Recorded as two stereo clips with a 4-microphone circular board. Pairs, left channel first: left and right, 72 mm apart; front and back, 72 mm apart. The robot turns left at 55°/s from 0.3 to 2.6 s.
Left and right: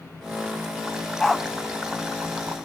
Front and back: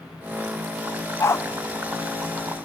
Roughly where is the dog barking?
Ahead.